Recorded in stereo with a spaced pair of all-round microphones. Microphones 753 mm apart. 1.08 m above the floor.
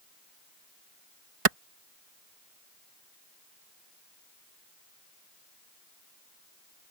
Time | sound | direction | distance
1.4 | a clap | 45° right (ahead or behind) | ?